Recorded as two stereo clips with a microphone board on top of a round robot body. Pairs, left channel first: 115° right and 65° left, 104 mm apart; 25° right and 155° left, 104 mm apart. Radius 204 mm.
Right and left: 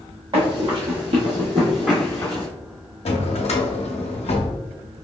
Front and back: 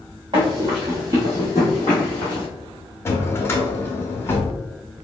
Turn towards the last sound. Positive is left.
turn(degrees=-90)